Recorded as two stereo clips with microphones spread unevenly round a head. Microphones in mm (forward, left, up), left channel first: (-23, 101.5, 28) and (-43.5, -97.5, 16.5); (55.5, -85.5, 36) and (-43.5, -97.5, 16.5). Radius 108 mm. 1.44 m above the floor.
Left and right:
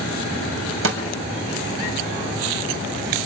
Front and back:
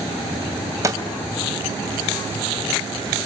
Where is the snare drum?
110° right, 3 m.